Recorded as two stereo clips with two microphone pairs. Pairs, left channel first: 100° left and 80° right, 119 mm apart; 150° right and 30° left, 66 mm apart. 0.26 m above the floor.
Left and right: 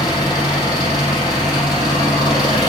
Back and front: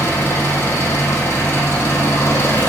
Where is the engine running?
155° left, 4 m.